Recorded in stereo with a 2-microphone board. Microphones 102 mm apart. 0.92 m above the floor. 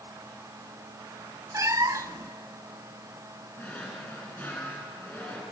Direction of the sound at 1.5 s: 30° right (ahead or behind).